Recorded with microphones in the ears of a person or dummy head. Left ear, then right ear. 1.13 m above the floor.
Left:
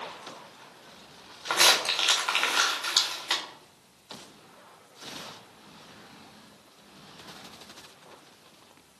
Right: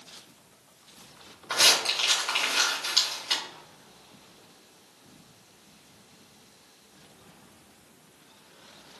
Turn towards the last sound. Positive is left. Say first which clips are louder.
# even
turn(degrees=30)  # may be behind; listen again after turning